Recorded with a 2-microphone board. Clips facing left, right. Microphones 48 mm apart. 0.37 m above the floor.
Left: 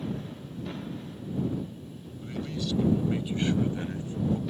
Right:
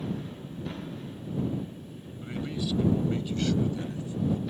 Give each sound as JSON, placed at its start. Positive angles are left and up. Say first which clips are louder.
{"t": 2.2, "sound": "a man speaking", "louder": "right 1 dB", "side_deg": -25}